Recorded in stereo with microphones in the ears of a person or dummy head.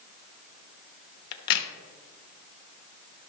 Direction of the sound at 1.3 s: 60° left (ahead or behind).